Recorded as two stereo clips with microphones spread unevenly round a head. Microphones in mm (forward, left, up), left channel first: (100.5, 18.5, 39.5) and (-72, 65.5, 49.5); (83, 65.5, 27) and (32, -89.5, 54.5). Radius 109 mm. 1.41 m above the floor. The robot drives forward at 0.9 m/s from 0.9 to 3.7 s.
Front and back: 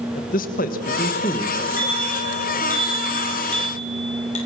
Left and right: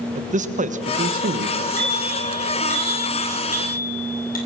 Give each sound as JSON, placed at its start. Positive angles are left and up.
{"t": 0.1, "sound": "a man speaking", "azimuth_deg": -65, "distance_m": 1.4}
{"t": 1.8, "sound": "a bicycle bell", "azimuth_deg": 30, "distance_m": 8.0}